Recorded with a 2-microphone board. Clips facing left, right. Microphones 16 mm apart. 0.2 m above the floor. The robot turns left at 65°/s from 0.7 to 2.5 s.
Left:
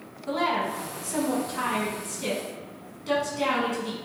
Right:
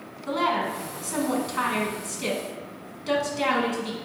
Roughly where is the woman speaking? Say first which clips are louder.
Right 1 dB; ahead right.